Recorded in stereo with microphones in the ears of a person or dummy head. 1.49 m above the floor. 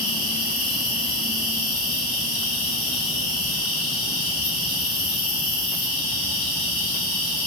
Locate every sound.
0.0 s an insect: 75° left (ahead or behind), 4 m